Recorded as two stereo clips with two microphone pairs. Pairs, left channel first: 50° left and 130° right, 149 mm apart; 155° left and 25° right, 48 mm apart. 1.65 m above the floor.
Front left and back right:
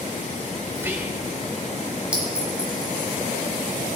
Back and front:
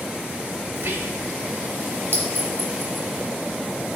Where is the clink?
50° right, 2.5 m.